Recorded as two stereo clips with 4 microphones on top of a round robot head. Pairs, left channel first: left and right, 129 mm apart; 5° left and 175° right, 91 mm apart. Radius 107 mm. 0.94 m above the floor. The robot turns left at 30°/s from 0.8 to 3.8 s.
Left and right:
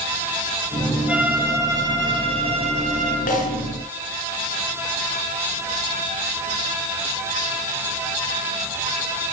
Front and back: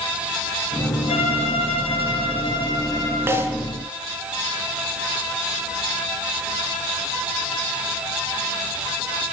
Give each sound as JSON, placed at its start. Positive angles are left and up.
{"t": 1.1, "sound": "a violin", "azimuth_deg": -10, "distance_m": 5.0}
{"t": 3.3, "sound": "a snare drum", "azimuth_deg": 120, "distance_m": 6.0}